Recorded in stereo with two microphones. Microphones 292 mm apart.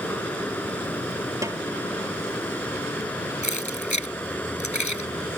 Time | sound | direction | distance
0.0 | running water | 5° left (ahead or behind) | ?
1.4 | a snare drum | 10° right (ahead or behind) | ?
3.4 | keys jangling | 75° left (ahead or behind) | ?